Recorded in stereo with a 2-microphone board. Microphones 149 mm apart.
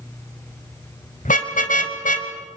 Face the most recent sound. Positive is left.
turn(degrees=60)  # may be behind; listen again after turning